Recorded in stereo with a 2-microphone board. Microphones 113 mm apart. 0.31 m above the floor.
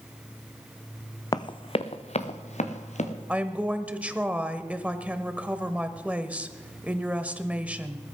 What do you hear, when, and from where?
1.3 s running footsteps: 35° left (ahead or behind), 0.8 m; by 3.1 s 75° left (ahead or behind), 2.5 m
3.3 s a woman speaking: 10° right (ahead or behind), 1.0 m